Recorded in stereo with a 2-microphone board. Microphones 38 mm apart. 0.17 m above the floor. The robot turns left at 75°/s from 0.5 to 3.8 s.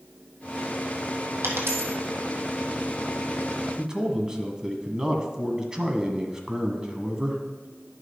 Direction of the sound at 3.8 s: 20° right (ahead or behind).